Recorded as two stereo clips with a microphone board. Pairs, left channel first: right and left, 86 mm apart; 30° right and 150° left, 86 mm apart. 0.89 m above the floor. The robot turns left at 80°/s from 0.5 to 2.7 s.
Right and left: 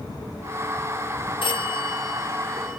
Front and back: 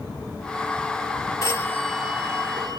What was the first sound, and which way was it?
A phone ringing, 85° right.